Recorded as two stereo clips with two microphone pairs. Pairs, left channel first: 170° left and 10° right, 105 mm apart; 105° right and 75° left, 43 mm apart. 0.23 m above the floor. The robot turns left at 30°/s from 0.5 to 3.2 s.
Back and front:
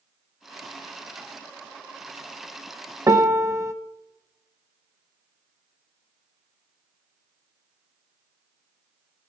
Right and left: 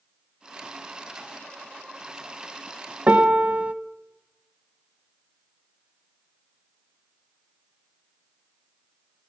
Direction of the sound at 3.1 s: 40° left.